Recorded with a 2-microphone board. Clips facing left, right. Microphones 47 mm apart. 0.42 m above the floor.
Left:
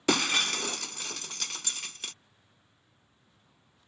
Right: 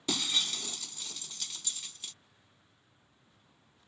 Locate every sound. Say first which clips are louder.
0.1 s breaking glass: left 7 dB; 80° left